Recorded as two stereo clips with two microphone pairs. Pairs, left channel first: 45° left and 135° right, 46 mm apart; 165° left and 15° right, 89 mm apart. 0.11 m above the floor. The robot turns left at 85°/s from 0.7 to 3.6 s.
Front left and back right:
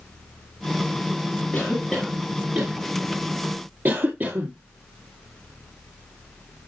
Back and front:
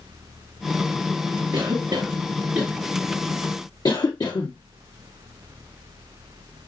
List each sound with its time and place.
1.5 s a cough: straight ahead, 2 m; by 4.5 s 175° right, 2 m